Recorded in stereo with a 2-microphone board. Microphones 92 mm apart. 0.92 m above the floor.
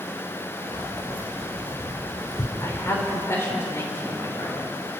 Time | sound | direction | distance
0.7 | keys jangling | 65° left (ahead or behind) | 3 m
2.6 | a woman speaking | 30° left (ahead or behind) | 3.5 m